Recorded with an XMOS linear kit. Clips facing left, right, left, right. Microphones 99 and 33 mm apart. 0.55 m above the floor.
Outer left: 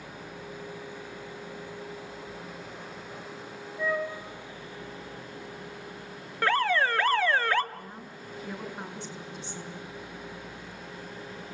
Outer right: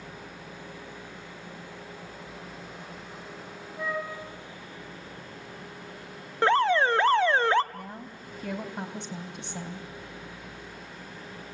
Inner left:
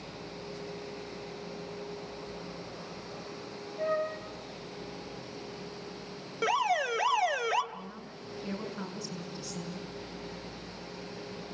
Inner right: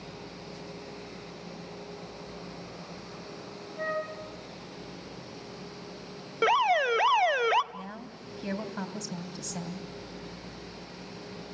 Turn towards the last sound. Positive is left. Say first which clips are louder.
# outer right 2 dB, inner right 2 dB
turn(degrees=-75)  # may be behind; listen again after turning